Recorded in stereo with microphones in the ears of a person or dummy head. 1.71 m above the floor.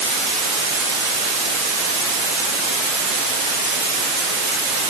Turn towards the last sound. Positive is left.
No sound to turn to.